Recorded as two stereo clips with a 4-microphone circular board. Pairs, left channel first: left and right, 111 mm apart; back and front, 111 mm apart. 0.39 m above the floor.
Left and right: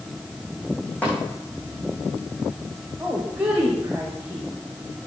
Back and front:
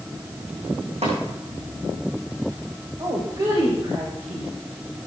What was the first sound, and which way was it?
Tapping, 15° left.